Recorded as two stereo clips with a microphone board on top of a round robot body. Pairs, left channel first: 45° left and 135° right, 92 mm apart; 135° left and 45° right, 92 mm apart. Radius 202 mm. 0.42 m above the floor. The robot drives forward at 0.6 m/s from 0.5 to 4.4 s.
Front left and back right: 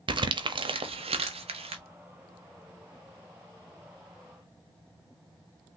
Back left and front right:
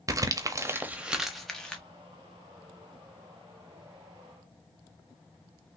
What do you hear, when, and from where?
0.1 s crumpling: 100° right, 0.6 m; by 1.8 s 145° right, 1.1 m